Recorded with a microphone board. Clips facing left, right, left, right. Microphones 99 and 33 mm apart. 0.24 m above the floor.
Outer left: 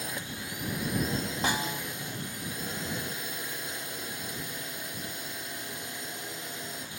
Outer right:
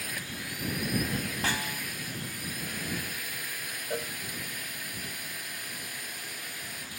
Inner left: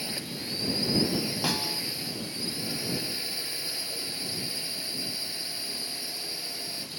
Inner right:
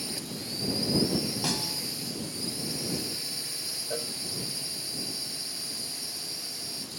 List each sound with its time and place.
0.0 s a drone: 25° left (ahead or behind)
1.4 s a snare drum: 20° left (ahead or behind)
3.9 s a cowbell: 50° right (ahead or behind)